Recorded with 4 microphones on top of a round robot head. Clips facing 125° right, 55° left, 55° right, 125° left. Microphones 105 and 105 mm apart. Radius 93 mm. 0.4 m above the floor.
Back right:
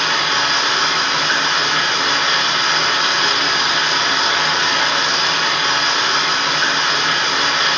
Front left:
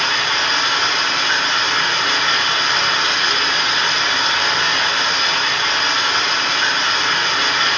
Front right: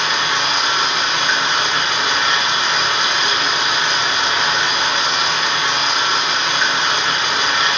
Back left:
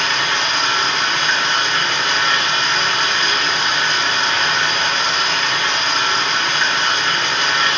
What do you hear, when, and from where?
0.0 s running water: 130° right, 1.1 m